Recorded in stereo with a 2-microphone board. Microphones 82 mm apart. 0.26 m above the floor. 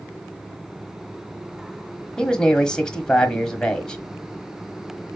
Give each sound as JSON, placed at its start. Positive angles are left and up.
{"t": 2.2, "sound": "a man speaking", "side_deg": 10, "distance_m": 1.2}